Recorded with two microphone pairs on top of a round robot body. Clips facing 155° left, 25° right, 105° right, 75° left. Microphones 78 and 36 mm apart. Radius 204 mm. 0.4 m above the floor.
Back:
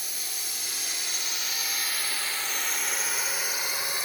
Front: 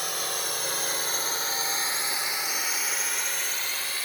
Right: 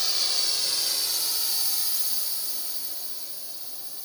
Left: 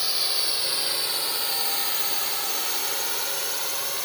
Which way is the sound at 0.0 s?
5° right.